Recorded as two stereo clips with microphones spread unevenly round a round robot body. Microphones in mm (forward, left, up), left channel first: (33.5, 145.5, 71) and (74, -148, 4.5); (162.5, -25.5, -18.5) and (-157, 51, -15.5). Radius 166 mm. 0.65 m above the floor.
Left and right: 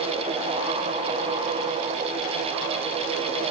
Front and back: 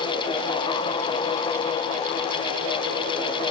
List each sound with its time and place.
Only background noise.